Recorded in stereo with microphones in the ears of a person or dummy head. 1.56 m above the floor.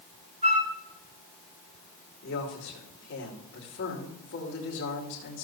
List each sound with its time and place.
0.4 s a flute: 25° right (ahead or behind), 1.4 m
2.2 s a man speaking: 50° left (ahead or behind), 2.5 m